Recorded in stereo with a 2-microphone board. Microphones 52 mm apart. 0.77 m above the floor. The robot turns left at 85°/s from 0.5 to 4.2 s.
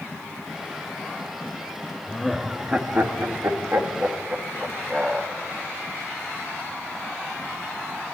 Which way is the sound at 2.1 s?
20° left (ahead or behind).